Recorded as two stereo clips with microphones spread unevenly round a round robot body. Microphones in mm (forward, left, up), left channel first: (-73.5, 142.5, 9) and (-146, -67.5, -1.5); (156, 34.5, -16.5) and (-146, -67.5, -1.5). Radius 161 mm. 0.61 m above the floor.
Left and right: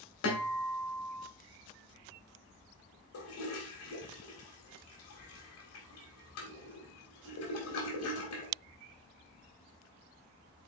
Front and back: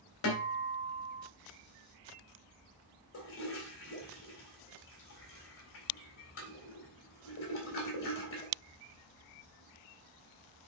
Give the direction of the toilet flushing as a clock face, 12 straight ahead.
10 o'clock.